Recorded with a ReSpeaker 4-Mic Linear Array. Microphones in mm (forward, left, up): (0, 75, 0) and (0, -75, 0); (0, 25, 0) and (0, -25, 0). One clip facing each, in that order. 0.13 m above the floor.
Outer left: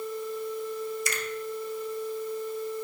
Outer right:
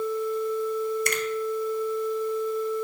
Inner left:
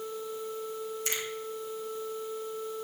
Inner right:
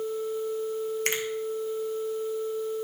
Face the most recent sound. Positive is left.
turn(degrees=-60)  # may be behind; listen again after turning